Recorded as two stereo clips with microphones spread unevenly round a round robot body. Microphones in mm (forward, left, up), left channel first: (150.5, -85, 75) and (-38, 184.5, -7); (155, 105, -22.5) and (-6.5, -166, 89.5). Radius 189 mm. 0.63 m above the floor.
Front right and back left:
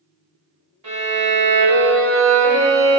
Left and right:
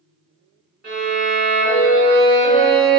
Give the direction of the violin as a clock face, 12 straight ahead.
7 o'clock.